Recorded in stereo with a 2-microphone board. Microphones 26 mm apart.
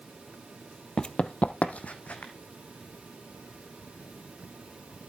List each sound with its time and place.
1.0 s running footsteps: 35° left (ahead or behind), 0.5 m; by 2.3 s 65° left (ahead or behind), 1.4 m